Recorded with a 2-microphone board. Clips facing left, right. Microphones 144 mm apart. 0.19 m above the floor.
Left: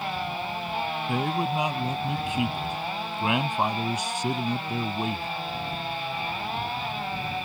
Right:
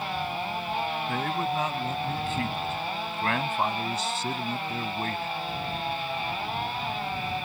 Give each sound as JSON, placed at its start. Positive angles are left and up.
{"t": 1.1, "sound": "a man speaking", "side_deg": 15}